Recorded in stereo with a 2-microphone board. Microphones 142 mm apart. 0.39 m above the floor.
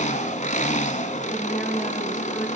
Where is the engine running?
65° left (ahead or behind), 1.3 m.